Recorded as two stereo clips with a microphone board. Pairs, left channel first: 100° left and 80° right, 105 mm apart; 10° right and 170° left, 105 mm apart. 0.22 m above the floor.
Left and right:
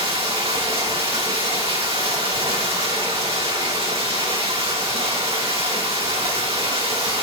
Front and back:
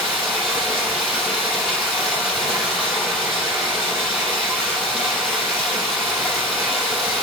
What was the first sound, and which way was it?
Running water, 95° right.